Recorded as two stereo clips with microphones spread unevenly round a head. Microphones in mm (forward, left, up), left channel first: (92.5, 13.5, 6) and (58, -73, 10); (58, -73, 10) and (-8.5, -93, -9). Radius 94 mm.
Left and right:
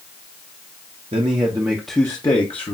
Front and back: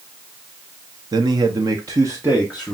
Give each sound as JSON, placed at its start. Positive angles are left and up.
{"t": 1.1, "sound": "a man speaking", "azimuth_deg": -160, "distance_m": 0.7}